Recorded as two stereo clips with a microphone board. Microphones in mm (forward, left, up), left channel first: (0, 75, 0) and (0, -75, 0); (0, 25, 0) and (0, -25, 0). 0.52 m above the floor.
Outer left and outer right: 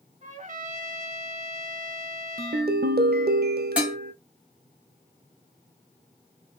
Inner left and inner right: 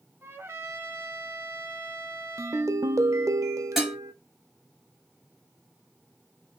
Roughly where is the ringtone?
Right.